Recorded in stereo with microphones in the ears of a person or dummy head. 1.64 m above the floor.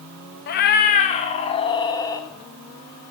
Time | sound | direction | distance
0.5 | a cat meowing | 40° left (ahead or behind) | 1.1 m